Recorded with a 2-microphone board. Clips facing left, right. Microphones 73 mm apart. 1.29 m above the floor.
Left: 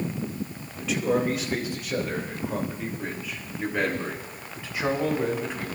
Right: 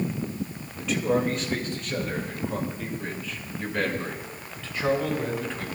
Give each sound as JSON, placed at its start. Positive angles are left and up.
{"t": 0.8, "sound": "a man speaking", "side_deg": 0, "distance_m": 2.5}